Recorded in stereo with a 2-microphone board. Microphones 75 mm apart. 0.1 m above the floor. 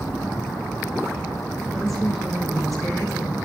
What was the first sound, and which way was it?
A woman speaking, centre (ahead or behind).